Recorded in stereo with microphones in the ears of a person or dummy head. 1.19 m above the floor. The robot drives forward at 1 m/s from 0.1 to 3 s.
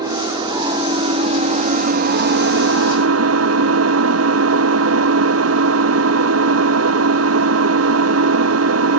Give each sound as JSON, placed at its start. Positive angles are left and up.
{"t": 0.0, "sound": "an engine running", "side_deg": -25, "distance_m": 3.0}